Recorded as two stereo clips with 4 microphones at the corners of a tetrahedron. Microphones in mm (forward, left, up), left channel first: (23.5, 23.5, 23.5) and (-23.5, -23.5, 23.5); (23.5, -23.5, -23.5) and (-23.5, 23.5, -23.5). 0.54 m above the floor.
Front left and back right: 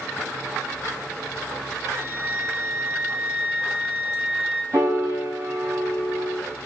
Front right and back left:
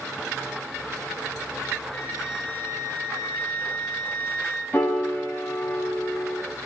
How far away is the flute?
About 2.5 m.